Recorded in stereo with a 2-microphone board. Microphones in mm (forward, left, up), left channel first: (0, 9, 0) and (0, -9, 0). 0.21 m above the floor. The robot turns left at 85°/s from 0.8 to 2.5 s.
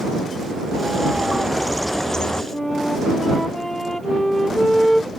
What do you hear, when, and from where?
0.7 s a bird: 100° right; by 2.4 s 120° left
2.5 s a flute: 20° left (ahead or behind)